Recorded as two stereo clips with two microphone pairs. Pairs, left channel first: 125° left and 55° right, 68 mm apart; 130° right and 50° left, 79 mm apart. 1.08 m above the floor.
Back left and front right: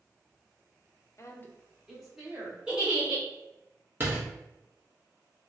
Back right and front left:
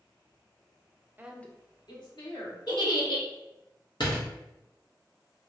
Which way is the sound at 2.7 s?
135° right.